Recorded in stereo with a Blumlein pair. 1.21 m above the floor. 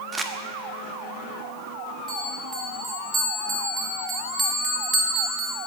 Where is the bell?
15° right, 2.5 m.